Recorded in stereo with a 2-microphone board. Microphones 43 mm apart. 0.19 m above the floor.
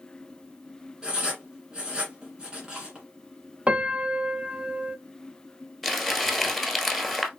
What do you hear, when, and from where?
1.0 s writing: 15° right (ahead or behind), 1.8 m
3.7 s a piano: 30° right (ahead or behind), 0.5 m
5.8 s crumpling: 5° right (ahead or behind), 1.1 m